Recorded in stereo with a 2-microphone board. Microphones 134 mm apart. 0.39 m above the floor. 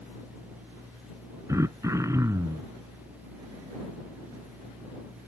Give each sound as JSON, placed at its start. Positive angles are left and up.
{"t": 1.5, "sound": "throat clearing", "side_deg": -25}